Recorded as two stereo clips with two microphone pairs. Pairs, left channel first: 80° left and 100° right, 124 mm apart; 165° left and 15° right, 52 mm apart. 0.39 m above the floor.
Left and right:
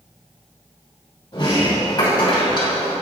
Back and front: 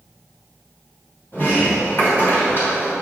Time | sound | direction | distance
1.3 | a sliding door | 130° left | 2.5 m